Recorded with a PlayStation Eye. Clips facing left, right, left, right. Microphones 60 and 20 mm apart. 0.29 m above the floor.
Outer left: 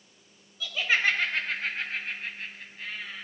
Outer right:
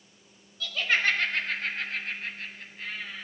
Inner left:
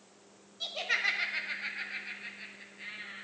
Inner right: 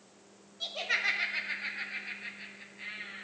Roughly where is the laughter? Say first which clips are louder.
Even, even; centre.